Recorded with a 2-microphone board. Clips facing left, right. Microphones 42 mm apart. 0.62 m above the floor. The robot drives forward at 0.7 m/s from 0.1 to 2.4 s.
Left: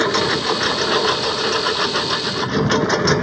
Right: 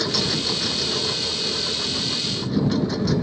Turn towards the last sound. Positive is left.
turn(degrees=75)  # may be behind; listen again after turning